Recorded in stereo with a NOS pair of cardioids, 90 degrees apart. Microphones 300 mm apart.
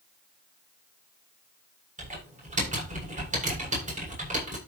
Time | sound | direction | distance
2.0 | typing on a keyboard | 25° right | 7.5 m